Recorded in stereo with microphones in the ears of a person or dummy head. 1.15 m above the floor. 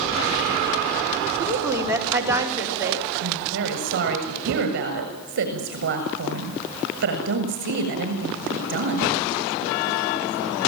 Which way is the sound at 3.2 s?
55° right (ahead or behind).